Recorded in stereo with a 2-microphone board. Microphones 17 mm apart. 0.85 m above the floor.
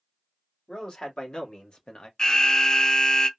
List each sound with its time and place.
0.7 s a man speaking: 65° left (ahead or behind), 1.5 m; by 2.1 s 50° left (ahead or behind), 0.8 m
2.2 s an alarm: 50° left (ahead or behind), 0.5 m